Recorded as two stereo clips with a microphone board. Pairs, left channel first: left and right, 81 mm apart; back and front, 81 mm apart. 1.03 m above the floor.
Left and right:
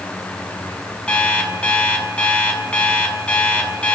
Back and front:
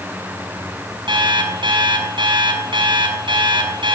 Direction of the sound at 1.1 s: 15° left.